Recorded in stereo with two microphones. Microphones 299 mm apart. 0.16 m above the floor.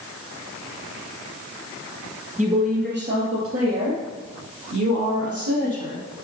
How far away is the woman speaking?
About 3.5 m.